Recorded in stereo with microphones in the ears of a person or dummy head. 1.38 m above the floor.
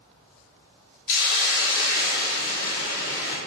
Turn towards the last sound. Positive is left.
turn(degrees=60)  # may be behind; listen again after turning